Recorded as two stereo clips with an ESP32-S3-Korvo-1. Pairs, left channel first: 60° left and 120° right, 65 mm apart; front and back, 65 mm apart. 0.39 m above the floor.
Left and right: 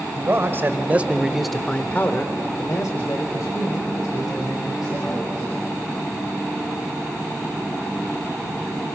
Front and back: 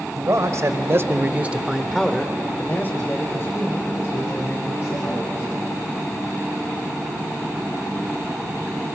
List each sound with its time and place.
0.2 s a man speaking: 160° right, 1.7 m; by 5.5 s 40° left, 3.5 m